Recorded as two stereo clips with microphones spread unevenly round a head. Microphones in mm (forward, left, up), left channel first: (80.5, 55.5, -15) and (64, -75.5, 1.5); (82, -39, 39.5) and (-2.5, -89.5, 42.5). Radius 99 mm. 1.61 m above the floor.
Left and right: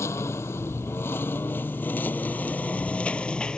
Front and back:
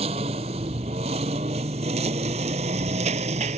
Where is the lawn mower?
160° left; by 3.6 s 170° left.